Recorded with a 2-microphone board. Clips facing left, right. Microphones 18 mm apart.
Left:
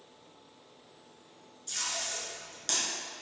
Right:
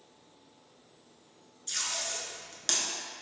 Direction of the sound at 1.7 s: 30° right (ahead or behind).